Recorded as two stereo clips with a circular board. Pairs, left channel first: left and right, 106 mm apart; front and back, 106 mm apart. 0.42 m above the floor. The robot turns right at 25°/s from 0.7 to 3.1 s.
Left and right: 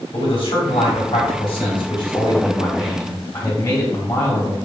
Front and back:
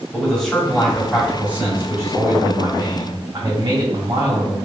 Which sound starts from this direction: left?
A man speaking, at 0.1 s.